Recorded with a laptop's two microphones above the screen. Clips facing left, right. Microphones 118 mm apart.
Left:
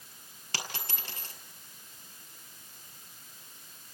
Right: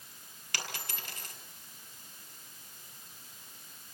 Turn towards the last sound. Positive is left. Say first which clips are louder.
# left 2 dB
turn(degrees=30)  # may be behind; listen again after turning